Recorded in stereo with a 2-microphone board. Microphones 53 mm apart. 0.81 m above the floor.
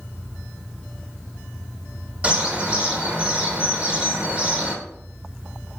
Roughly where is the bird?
Right.